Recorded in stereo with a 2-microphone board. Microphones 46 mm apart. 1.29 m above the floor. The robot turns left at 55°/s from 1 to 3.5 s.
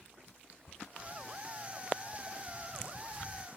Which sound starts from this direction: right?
Footsteps, at 1.0 s.